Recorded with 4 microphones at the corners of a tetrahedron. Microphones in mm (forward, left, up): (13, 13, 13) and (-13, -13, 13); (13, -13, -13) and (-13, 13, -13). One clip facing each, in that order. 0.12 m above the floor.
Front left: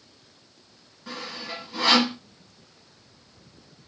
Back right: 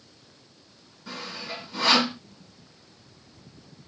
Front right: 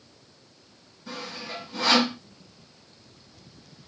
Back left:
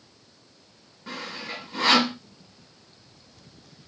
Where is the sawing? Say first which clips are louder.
Front left 1 dB, back left 1 dB; 110° left, 2 m.